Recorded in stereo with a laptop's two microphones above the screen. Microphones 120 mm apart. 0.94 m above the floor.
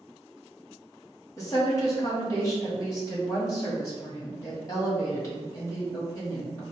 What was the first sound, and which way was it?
A woman speaking, 30° left (ahead or behind).